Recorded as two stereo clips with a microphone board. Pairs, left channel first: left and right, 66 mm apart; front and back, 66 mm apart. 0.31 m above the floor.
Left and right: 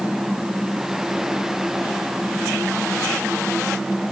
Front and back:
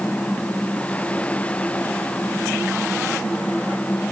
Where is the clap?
No clap in this recording.